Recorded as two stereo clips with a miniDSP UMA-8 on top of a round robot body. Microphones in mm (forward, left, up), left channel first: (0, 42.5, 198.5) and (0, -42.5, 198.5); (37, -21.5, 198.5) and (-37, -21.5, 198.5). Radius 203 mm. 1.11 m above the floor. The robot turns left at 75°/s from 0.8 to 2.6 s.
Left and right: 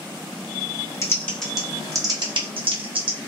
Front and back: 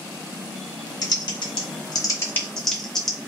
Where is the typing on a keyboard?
35° left, 1.1 m; by 3.2 s 85° right, 1.1 m.